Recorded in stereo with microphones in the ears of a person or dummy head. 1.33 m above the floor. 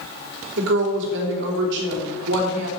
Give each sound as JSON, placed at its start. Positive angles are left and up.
{"t": 0.6, "sound": "a woman speaking", "side_deg": -65, "distance_m": 3.0}